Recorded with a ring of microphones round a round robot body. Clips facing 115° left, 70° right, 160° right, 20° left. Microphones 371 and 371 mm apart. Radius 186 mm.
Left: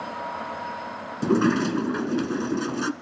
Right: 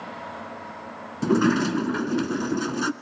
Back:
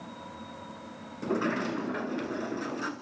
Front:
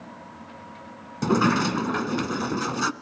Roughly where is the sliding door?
Ahead.